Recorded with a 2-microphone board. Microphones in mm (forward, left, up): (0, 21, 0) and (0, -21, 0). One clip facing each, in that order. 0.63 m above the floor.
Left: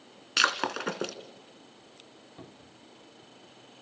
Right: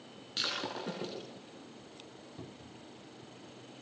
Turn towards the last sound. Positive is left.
turn(degrees=20)  # may be behind; listen again after turning